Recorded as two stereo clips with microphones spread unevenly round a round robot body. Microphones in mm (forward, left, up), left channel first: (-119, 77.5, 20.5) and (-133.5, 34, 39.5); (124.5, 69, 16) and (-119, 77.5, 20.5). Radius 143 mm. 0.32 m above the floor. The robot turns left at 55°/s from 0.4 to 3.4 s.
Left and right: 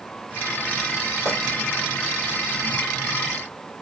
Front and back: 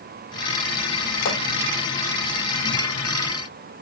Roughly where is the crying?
I don't hear crying.